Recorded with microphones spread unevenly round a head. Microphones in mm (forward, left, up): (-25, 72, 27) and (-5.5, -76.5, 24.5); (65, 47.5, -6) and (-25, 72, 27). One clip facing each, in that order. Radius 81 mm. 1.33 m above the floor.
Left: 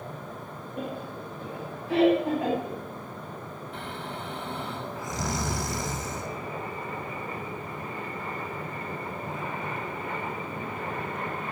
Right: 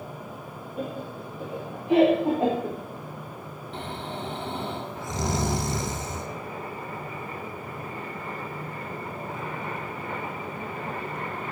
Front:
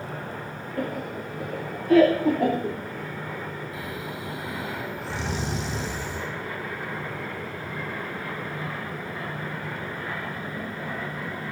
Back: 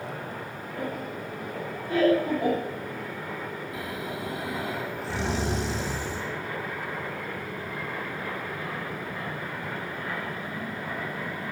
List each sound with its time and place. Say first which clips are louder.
0.8 s laughter: right 2 dB, front 3 dB; 10° left, 2.5 m; by 2.8 s 20° right, 3.5 m
3.7 s snoring: right 4 dB, back 1 dB; 145° right, 1.8 m